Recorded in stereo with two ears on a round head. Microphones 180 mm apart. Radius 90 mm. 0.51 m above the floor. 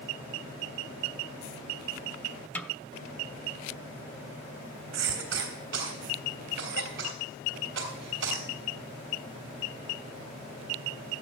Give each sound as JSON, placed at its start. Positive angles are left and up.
{"t": 2.5, "sound": "a snare drum", "side_deg": 5, "distance_m": 0.6}
{"t": 4.9, "sound": "a cough", "side_deg": -65, "distance_m": 3.0}